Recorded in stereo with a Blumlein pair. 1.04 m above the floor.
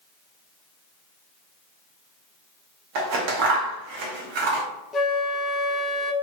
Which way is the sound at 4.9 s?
20° left.